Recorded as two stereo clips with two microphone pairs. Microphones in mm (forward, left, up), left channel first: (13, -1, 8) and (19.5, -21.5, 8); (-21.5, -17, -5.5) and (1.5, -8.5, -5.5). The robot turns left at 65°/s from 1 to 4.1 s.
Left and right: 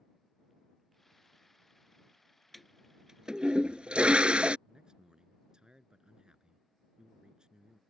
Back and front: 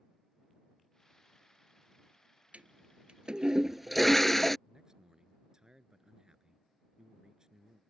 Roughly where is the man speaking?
Ahead right.